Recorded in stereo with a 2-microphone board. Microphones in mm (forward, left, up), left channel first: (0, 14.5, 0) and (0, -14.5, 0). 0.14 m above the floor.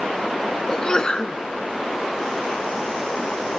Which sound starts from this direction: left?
A sneeze, at 0.7 s.